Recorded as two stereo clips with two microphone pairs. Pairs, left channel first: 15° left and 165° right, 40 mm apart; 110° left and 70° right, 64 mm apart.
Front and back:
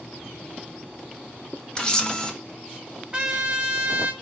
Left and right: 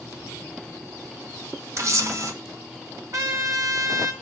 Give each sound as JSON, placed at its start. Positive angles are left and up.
{"t": 1.8, "sound": "a camera shutter", "azimuth_deg": -50, "distance_m": 1.2}
{"t": 3.1, "sound": "a trumpet", "azimuth_deg": -95, "distance_m": 1.6}